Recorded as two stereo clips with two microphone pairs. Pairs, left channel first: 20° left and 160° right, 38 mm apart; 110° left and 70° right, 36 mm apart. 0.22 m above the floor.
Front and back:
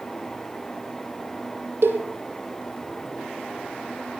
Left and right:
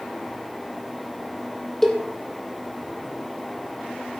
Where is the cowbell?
170° right, 2 m.